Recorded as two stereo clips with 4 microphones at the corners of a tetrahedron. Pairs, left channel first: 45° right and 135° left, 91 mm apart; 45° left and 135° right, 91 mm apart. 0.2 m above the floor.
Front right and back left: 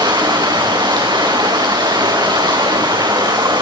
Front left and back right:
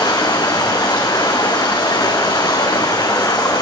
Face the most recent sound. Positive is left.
turn(degrees=90)